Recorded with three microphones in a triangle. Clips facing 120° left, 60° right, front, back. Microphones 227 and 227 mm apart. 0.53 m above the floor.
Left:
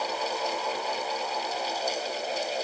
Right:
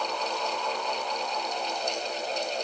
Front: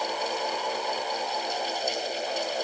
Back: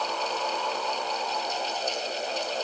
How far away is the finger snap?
No finger snap in this recording.